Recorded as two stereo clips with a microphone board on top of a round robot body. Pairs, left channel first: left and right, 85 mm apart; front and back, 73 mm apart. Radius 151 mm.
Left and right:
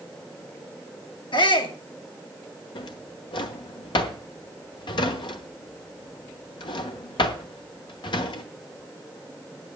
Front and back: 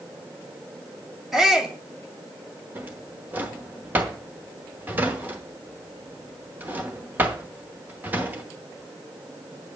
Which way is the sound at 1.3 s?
95° left.